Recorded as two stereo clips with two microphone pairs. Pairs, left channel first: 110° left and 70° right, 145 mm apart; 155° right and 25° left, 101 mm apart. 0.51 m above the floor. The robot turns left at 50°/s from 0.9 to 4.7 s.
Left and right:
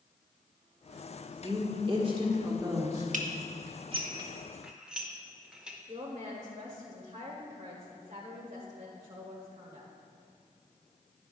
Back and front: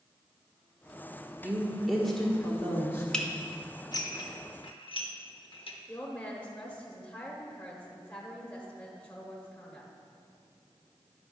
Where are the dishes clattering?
75° right, 0.9 m; by 5.8 s 155° right, 0.9 m.